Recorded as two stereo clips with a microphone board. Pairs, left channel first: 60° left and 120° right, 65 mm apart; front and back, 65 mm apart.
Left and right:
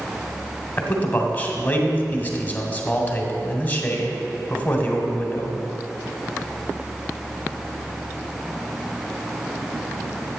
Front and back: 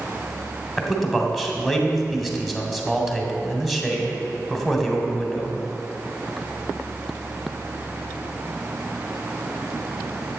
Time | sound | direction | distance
0.8 | a man speaking | 95° left | 1.3 m